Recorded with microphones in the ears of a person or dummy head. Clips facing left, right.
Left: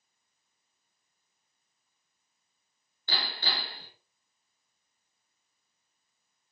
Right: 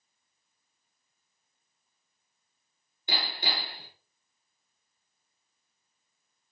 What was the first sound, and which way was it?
Hammering, 15° right (ahead or behind).